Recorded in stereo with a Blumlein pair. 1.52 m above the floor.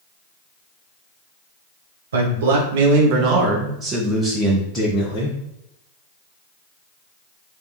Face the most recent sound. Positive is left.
turn(degrees=30)